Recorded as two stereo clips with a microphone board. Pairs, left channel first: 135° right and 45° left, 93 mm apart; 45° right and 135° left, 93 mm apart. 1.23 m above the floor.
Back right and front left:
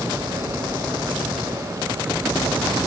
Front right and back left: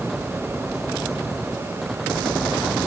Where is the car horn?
I don't hear a car horn.